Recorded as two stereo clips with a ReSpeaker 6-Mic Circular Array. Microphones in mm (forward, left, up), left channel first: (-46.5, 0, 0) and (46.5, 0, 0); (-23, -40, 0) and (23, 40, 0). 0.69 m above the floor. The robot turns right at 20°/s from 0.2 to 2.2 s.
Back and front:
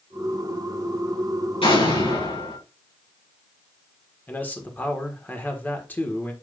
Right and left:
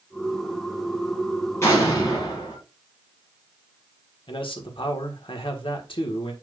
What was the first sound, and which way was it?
An explosion, straight behind.